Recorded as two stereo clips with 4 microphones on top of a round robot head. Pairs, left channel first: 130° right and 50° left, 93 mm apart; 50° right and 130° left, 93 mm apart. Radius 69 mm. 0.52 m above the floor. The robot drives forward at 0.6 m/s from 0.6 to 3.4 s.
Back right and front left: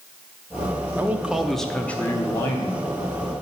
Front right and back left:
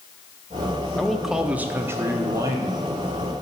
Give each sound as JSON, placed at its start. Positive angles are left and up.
{"t": 1.0, "sound": "a man speaking", "azimuth_deg": 20, "distance_m": 0.7}